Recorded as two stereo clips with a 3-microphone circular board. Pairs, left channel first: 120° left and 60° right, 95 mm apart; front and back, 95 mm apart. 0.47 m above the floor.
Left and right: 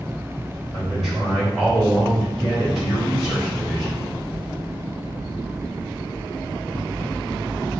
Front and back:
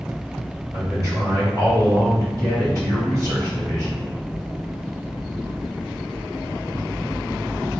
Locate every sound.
0.7 s a man speaking: 145° right, 1.9 m